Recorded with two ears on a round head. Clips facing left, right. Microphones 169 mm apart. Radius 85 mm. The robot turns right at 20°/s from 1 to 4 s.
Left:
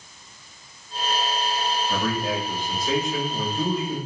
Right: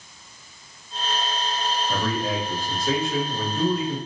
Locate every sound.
1.9 s a man speaking: 150° right, 1.9 m; by 4.0 s 110° right, 1.9 m